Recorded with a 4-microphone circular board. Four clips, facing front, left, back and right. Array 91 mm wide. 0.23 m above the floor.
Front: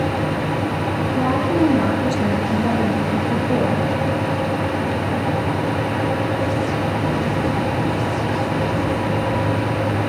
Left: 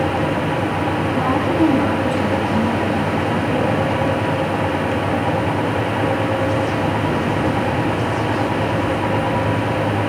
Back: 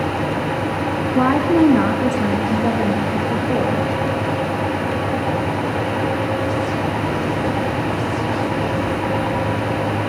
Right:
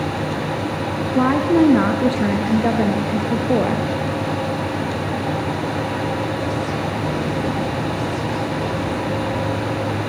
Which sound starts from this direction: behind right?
A woman speaking, at 1.1 s.